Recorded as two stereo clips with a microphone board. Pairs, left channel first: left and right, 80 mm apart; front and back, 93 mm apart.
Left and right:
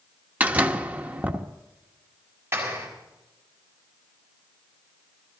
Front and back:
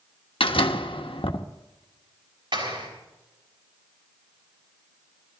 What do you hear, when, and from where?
0.4 s a door slam: 20° right, 1.1 m
2.5 s a clap: 150° right, 6 m